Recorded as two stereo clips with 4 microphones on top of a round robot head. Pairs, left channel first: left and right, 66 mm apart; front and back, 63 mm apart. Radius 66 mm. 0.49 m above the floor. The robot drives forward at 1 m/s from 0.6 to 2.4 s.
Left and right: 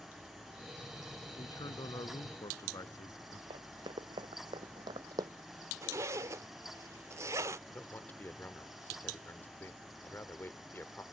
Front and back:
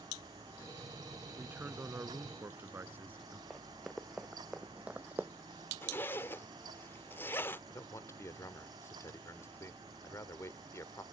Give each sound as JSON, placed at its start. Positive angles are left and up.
{"t": 1.4, "sound": "a man speaking", "azimuth_deg": 115}
{"t": 3.5, "sound": "running footsteps", "azimuth_deg": -95}
{"t": 5.8, "sound": "a zipper", "azimuth_deg": -55}
{"t": 7.7, "sound": "a man speaking", "azimuth_deg": 30}